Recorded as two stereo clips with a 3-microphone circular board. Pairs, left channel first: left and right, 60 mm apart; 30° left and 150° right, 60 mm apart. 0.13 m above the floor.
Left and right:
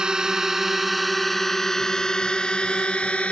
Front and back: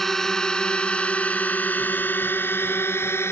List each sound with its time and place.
0.0 s a drone: 45° right; by 3.3 s 30° left